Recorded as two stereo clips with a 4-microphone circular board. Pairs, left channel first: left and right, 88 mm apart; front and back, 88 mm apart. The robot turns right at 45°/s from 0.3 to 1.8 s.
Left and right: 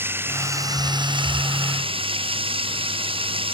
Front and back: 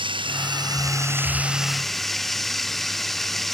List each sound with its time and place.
0.0 s running water: 155° right; by 3.6 s 90° right